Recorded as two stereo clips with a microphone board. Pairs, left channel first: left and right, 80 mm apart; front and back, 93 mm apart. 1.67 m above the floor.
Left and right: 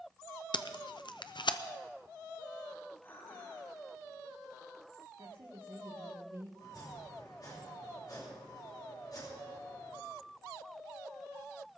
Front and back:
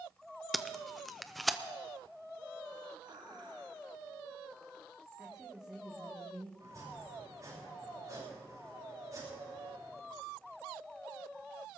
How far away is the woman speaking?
About 2 m.